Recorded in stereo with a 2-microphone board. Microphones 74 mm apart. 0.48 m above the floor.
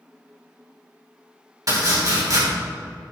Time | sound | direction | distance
1.7 | chopping | 55° right (ahead or behind) | 3.5 m